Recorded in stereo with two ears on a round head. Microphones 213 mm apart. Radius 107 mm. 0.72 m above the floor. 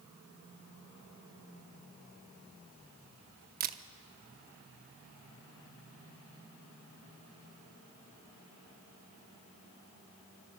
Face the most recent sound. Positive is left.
turn(degrees=-40)  # may be behind; listen again after turning